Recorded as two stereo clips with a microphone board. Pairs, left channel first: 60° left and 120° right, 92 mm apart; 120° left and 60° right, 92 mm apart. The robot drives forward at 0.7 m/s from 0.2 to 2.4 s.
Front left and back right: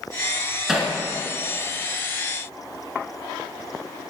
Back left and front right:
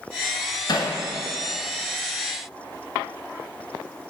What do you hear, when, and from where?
0.7 s hammering: 155° left, 1.2 m